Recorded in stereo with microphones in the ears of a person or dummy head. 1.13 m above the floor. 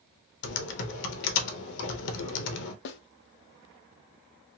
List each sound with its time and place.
0.4 s typing on a keyboard: 70° left (ahead or behind), 0.7 m
2.9 s a snare drum: 65° left (ahead or behind), 0.5 m